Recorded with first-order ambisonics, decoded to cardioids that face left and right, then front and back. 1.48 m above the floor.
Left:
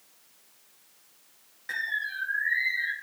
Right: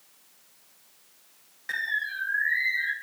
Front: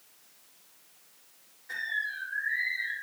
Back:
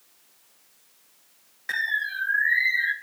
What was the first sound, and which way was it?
A bird, 175° right.